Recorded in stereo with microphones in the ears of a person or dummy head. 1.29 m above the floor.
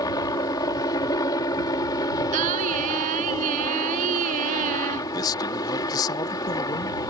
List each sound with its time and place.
0.0 s a helicopter: 20° left (ahead or behind)
2.3 s singing: 45° right (ahead or behind)
5.1 s a man speaking: 20° left (ahead or behind)